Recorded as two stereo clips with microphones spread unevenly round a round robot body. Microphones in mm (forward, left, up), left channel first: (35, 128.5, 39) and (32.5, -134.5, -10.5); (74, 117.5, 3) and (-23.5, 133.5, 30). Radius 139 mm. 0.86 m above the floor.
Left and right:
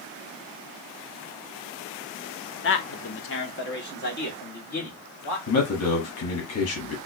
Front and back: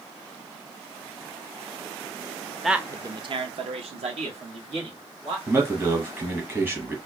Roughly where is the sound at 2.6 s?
Ahead left.